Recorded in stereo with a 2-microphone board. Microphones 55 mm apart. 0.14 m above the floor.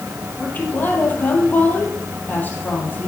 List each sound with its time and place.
0.4 s a woman speaking: 30° left (ahead or behind), 4 m